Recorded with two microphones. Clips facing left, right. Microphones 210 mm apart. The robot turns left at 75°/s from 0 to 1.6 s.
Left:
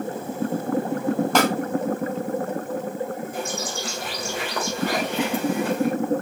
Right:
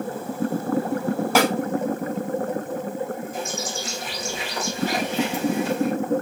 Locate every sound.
1.4 s a snare drum: 5° right (ahead or behind), 2 m; by 1.5 s 20° right (ahead or behind), 2 m
3.3 s a bird: 55° left (ahead or behind), 3.5 m